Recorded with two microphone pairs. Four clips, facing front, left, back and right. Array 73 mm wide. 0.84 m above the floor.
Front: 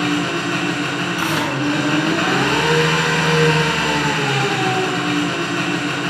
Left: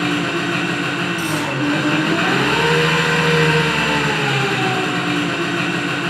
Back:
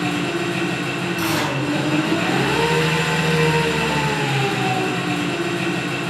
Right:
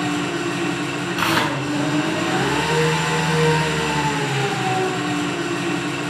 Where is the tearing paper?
70° right, 7.5 m.